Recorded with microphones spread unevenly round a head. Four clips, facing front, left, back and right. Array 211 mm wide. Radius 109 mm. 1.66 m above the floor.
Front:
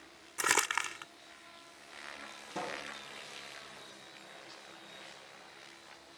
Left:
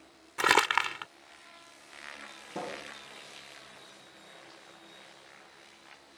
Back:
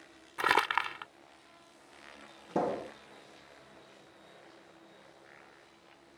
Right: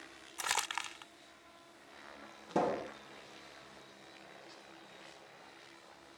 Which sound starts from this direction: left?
Crumpling, at 0.4 s.